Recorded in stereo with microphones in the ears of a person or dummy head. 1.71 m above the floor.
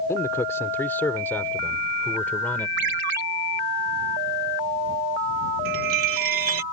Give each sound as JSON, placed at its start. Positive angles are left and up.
{"t": 0.1, "sound": "a man speaking", "side_deg": 15}
{"t": 2.8, "sound": "a ringtone", "side_deg": -55}
{"t": 5.7, "sound": "a chime", "side_deg": -50}